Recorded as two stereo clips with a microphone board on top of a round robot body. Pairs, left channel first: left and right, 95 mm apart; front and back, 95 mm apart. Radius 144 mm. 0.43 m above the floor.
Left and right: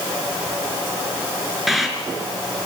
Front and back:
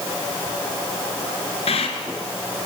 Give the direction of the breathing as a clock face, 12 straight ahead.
12 o'clock.